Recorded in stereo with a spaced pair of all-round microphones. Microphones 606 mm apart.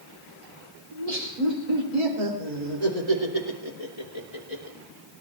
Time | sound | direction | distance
0.9 | laughter | 80° right | 4 m